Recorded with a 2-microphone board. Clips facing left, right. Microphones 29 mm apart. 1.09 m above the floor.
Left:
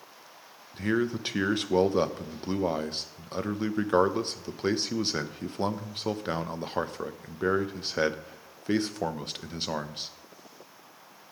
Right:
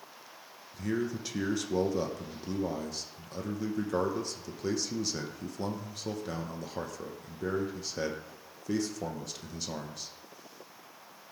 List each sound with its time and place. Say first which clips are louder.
0.7 s a man speaking: left 5 dB; 50° left (ahead or behind), 0.7 m